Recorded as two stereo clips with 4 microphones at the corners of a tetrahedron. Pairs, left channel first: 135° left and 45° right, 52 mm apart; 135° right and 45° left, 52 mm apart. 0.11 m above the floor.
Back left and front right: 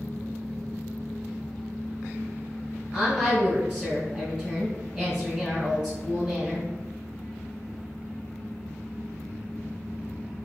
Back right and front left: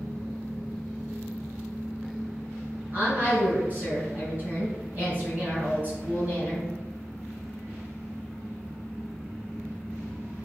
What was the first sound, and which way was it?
A woman speaking, 15° left.